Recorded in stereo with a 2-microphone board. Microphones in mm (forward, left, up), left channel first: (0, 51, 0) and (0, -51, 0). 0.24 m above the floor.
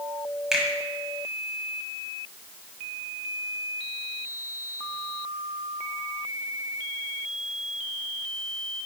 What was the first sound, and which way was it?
A finger snap, 5° right (ahead or behind).